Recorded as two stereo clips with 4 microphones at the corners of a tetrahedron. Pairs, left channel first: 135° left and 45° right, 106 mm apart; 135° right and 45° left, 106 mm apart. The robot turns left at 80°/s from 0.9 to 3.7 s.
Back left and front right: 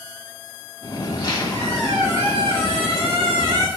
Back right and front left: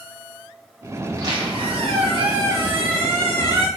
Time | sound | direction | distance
1.1 | a squeak | 110° left | 1.5 m